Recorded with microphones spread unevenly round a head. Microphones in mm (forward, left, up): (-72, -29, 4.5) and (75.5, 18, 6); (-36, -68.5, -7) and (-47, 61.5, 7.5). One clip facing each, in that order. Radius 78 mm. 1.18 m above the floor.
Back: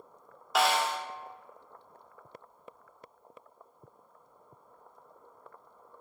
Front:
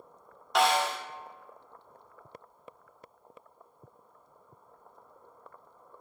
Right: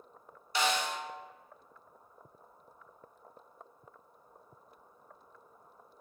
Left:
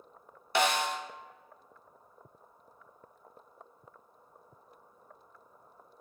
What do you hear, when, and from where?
0.6 s a snare drum: 110° left, 0.5 m